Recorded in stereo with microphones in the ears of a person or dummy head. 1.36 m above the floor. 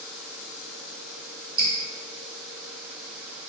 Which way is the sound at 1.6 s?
25° right (ahead or behind).